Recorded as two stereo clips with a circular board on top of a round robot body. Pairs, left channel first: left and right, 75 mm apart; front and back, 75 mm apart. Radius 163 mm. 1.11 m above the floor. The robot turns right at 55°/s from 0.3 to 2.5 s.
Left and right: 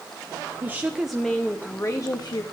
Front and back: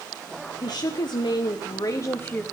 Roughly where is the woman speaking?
Ahead right.